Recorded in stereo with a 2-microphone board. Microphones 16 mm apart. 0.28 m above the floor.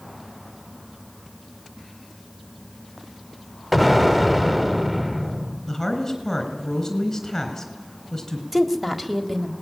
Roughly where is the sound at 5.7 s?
Centre.